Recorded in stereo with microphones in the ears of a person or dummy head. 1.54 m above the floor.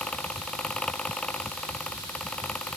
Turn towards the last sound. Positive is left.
turn(degrees=5)  # may be behind; listen again after turning